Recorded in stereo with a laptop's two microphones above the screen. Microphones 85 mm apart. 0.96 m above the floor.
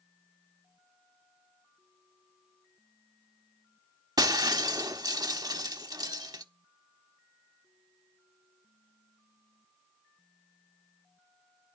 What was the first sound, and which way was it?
Breaking glass, 50° right (ahead or behind).